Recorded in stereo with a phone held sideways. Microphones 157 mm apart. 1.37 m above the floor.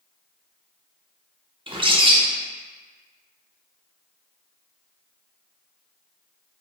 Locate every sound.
1.7 s a bird: 35° right (ahead or behind), 0.6 m